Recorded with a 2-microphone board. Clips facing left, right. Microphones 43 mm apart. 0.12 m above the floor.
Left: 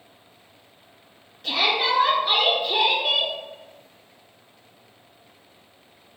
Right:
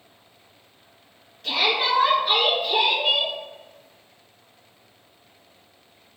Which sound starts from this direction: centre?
A shout, at 1.4 s.